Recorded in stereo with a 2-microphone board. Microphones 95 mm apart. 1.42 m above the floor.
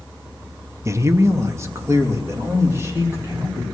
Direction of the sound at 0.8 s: 30° right (ahead or behind).